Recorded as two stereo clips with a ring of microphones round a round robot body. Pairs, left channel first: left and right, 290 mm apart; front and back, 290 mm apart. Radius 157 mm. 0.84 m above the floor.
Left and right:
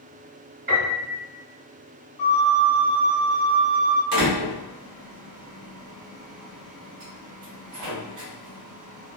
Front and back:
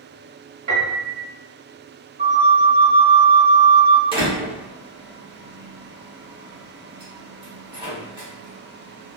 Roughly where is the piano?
Behind right.